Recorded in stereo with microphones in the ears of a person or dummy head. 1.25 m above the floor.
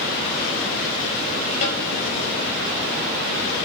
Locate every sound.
1.6 s a snare drum: 40° left (ahead or behind), 9 m